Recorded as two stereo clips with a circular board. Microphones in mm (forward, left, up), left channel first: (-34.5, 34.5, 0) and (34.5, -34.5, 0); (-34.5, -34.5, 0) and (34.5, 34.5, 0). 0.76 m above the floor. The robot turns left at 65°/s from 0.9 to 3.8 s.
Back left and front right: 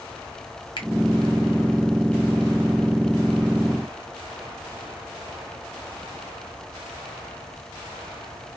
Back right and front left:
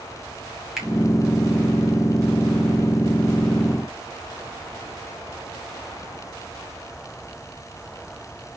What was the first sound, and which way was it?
A finger snap, 130° left.